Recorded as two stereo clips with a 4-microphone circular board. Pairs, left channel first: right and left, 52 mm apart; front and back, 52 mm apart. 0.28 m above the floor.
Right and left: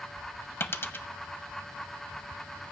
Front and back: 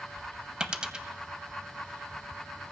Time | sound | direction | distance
0.6 | a dropped coin | 110° right | 0.5 m